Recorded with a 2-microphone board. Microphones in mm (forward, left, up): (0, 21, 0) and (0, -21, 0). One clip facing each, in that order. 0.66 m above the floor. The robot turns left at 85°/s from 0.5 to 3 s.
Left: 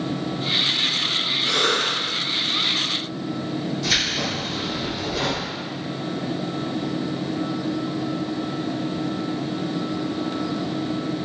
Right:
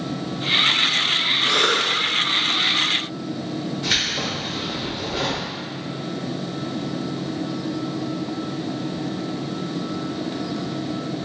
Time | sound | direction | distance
1.4 | a cough | 105° right | 1.1 m
3.8 | keys jangling | 30° right (ahead or behind) | 1.4 m